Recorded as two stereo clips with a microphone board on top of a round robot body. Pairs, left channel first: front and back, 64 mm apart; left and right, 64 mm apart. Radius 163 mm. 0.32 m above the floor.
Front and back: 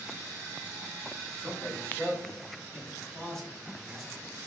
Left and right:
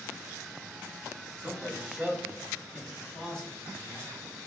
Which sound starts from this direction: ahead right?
A man speaking, at 1.4 s.